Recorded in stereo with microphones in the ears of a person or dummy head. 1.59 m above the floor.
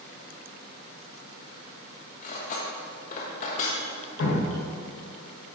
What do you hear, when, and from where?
2.2 s cutlery clinking: 50° left (ahead or behind), 1.2 m
4.2 s dripping: 75° left (ahead or behind), 1.7 m